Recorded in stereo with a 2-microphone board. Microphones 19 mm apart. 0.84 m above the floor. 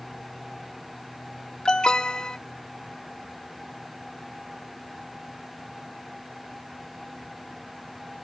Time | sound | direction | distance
1.6 | an alarm | 45° left (ahead or behind) | ?